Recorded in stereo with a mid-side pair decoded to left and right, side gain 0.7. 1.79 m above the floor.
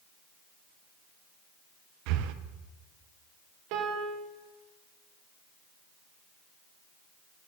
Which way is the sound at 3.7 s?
65° right.